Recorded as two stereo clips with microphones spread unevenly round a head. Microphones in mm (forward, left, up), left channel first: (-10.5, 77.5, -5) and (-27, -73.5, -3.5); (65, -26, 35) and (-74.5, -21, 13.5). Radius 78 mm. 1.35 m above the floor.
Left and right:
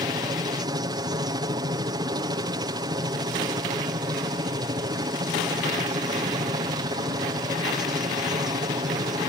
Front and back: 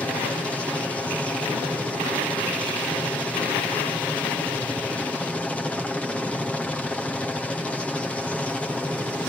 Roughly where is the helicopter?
Right.